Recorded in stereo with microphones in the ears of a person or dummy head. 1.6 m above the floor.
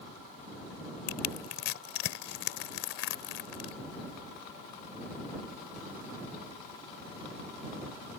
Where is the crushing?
65° left (ahead or behind).